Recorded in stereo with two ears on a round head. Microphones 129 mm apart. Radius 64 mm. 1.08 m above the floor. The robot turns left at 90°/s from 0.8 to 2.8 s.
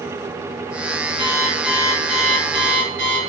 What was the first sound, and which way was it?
An alarm clock, 40° left.